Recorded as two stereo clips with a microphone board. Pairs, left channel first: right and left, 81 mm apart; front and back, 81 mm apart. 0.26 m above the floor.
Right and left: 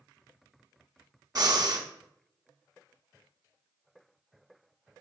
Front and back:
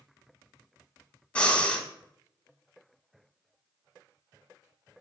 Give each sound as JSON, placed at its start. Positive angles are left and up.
{"t": 1.4, "sound": "breathing", "azimuth_deg": 75, "distance_m": 0.6}